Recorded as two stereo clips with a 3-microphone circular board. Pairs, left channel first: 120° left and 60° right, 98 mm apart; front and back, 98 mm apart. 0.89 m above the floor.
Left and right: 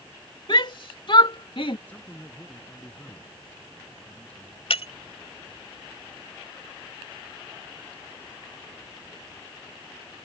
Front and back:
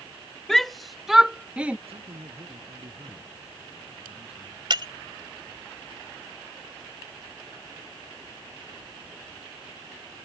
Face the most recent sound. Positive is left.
turn(degrees=140)